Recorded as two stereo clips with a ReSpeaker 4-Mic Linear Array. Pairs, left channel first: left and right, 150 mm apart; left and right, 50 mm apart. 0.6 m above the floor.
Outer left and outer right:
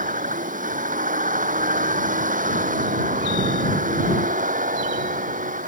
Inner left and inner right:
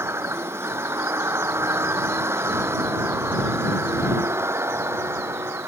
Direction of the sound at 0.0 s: 60° right (ahead or behind).